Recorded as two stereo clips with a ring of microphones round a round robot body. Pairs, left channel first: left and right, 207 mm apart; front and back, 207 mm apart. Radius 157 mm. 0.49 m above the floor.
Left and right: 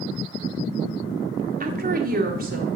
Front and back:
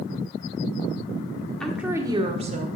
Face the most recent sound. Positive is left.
turn(degrees=-130)